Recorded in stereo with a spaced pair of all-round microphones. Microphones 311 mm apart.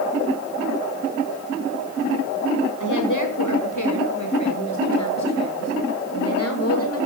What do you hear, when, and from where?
2.8 s a woman speaking: 75° left (ahead or behind), 5.5 m; by 7.0 s 50° left (ahead or behind), 7 m